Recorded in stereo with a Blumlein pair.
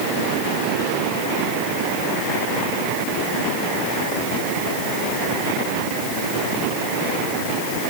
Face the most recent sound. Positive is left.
No sound to turn to.